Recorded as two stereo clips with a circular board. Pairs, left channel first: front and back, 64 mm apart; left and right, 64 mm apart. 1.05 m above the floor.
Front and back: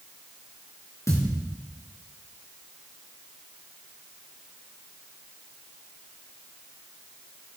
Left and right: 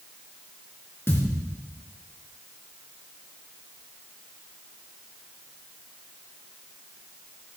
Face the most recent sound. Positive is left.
turn(degrees=40)